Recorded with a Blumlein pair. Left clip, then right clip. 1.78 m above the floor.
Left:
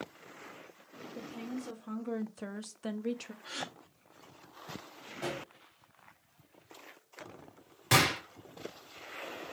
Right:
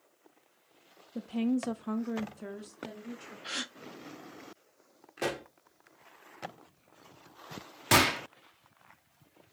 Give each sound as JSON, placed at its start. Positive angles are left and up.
{"t": 1.1, "sound": "a woman speaking", "azimuth_deg": -65, "distance_m": 0.6}
{"t": 3.4, "sound": "a gasp", "azimuth_deg": -60, "distance_m": 0.6}
{"t": 5.2, "sound": "a pop", "azimuth_deg": -40, "distance_m": 0.8}
{"t": 7.9, "sound": "a gunshot", "azimuth_deg": -15, "distance_m": 0.9}